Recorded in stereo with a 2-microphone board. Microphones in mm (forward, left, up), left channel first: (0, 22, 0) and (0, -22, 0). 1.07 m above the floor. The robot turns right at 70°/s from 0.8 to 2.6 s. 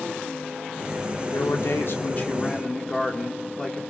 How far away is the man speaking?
About 3 m.